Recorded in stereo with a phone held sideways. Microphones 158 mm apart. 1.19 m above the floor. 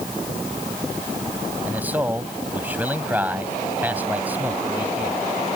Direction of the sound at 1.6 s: 10° right (ahead or behind).